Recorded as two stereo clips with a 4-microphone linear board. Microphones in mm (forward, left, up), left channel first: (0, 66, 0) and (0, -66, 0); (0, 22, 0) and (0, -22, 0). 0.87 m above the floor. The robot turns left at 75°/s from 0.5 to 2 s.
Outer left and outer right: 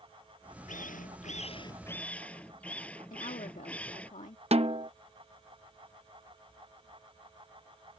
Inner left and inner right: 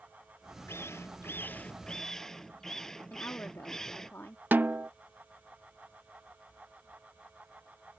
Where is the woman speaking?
70° left (ahead or behind).